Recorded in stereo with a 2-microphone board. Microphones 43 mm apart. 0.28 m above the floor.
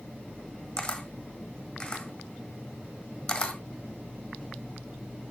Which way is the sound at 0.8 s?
20° left (ahead or behind).